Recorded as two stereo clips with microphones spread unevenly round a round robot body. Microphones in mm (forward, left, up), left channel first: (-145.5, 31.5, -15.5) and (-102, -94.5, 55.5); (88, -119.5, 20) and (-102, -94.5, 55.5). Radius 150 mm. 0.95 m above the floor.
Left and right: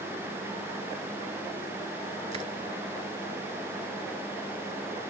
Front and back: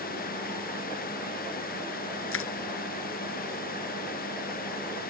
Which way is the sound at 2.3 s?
5° right.